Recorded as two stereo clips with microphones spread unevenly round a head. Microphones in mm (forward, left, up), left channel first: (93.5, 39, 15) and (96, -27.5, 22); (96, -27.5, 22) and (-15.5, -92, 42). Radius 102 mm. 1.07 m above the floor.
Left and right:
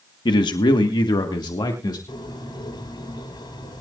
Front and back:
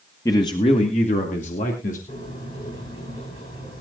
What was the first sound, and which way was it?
A man speaking, 105° left.